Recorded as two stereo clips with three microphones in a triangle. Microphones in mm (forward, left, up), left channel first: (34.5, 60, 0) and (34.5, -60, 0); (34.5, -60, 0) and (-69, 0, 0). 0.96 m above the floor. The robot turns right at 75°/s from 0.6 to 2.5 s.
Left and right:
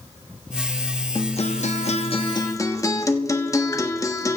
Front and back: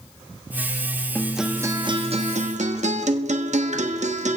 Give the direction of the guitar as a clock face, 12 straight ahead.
10 o'clock.